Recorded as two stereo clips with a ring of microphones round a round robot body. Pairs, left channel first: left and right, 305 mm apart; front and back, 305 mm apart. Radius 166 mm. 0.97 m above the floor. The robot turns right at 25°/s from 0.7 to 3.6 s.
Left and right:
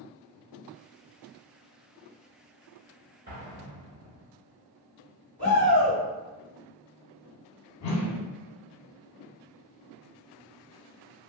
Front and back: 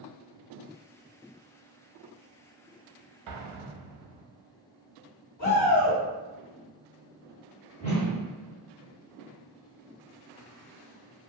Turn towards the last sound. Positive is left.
turn(degrees=65)